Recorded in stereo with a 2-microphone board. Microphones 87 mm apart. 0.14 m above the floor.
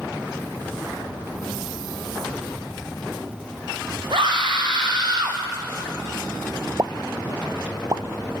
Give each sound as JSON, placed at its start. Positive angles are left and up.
{"t": 4.1, "sound": "a scream", "side_deg": -65, "distance_m": 4.5}
{"t": 6.8, "sound": "a pop", "side_deg": -40, "distance_m": 0.6}